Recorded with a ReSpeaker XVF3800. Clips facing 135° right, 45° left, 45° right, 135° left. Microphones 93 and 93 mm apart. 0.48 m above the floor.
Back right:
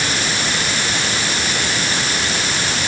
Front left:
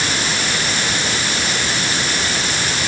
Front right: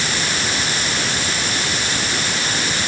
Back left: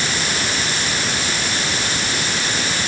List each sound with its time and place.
Only background noise.